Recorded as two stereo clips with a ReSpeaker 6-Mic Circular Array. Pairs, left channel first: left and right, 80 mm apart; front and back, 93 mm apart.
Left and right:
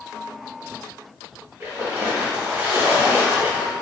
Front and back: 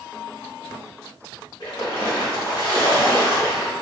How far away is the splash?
About 1.1 m.